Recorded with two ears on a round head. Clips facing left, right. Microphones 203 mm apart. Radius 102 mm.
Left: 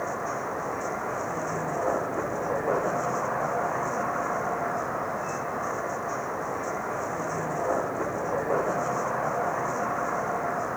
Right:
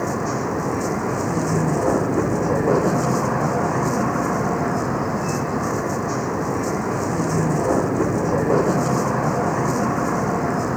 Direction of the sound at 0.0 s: 55° right (ahead or behind).